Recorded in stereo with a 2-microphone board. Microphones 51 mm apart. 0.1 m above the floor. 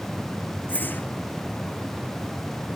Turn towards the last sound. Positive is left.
turn(degrees=40)  # may be behind; listen again after turning